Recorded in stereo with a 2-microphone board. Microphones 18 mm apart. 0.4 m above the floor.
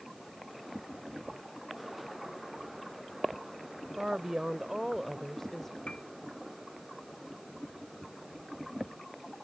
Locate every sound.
4.0 s a woman speaking: 50° right (ahead or behind); by 5.8 s 30° left (ahead or behind)
5.9 s a piano: 60° left (ahead or behind)